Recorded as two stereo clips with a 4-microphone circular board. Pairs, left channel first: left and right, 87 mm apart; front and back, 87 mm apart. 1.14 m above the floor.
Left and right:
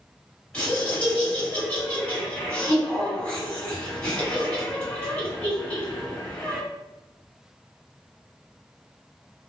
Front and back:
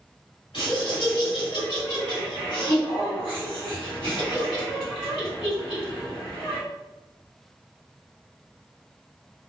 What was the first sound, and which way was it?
Laughter, 15° left.